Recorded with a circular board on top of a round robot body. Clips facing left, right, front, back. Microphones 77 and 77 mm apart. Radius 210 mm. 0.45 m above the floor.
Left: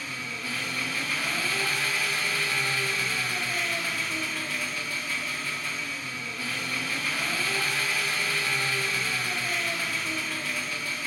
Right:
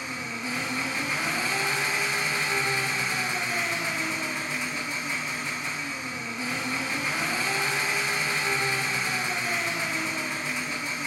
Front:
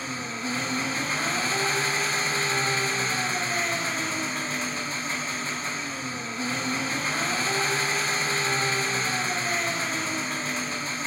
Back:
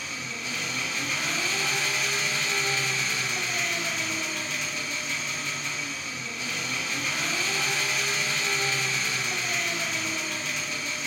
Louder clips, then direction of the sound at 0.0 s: Right 2 dB, front 4 dB; 30° right.